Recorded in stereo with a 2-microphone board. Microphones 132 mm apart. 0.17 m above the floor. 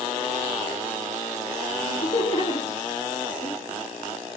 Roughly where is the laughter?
Left.